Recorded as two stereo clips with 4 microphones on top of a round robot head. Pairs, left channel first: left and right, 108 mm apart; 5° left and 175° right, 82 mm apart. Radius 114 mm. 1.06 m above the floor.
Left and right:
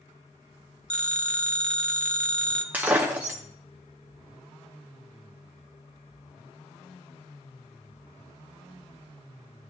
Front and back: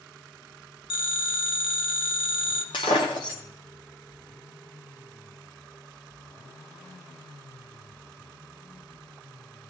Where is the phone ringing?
10° left, 1.2 m.